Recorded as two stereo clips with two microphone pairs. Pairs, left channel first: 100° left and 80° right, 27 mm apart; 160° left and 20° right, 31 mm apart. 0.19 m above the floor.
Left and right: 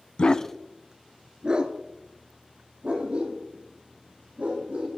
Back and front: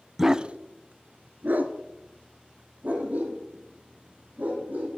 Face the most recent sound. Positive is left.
turn(degrees=-45)